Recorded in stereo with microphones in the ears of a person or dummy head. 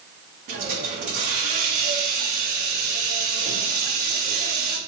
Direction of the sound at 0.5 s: 50° right (ahead or behind).